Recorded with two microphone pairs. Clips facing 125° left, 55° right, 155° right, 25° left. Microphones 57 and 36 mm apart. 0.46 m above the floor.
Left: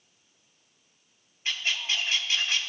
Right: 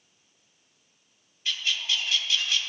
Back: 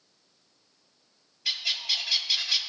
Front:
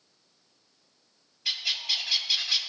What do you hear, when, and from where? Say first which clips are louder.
1.4 s a bird: even, even; 100° left, 0.6 m